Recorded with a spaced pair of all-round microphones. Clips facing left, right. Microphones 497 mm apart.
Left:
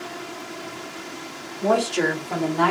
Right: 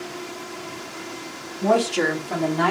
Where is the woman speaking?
20° right (ahead or behind), 1.4 m; by 2.7 s 40° right (ahead or behind), 1.9 m.